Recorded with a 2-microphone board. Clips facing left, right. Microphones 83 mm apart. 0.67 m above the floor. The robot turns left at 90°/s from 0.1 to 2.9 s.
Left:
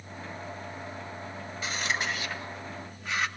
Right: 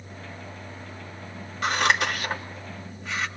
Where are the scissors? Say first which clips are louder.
Right 9 dB; 65° right (ahead or behind), 2.5 m; by 3.3 s centre (ahead or behind), 2.5 m.